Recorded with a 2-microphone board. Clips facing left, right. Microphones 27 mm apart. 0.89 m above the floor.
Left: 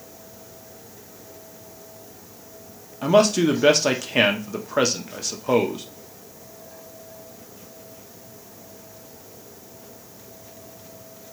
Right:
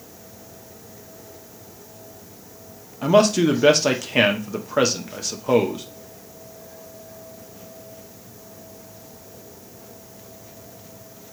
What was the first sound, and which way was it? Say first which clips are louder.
A man speaking: right 1 dB; 5° right (ahead or behind).